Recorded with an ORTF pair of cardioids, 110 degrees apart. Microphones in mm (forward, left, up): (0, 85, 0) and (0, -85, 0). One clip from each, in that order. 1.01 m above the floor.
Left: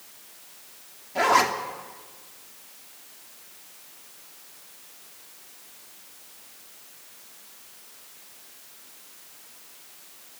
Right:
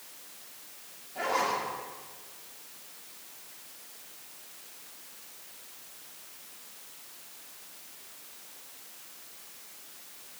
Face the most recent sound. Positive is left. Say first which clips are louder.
# left 9 dB
turn(degrees=70)